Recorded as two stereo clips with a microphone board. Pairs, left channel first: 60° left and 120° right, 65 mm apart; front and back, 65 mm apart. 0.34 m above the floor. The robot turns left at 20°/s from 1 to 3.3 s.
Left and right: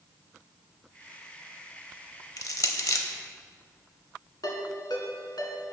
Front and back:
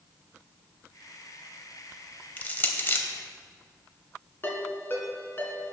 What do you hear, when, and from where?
2.4 s crushing: 60° left, 0.7 m; by 3.0 s 45° left, 0.7 m
4.4 s a ringtone: 55° left, 1.6 m